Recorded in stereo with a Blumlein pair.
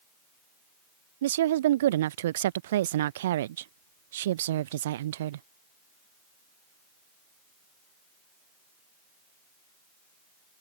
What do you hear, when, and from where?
1.2 s a woman speaking: 60° right